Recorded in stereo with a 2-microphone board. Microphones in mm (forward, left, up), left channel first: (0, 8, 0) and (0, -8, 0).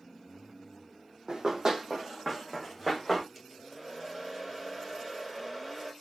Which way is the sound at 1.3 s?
45° right (ahead or behind).